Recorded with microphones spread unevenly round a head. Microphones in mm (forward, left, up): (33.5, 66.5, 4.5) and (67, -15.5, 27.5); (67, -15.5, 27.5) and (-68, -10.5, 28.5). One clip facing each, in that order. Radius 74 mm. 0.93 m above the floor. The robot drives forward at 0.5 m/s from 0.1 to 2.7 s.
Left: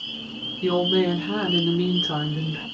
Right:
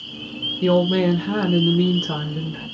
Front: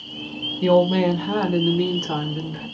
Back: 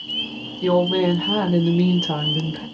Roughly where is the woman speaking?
Ahead right.